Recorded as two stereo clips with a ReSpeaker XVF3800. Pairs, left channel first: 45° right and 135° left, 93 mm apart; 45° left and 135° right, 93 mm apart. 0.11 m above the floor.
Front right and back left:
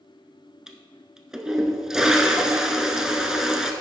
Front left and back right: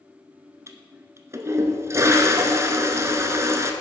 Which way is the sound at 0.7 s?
145° right.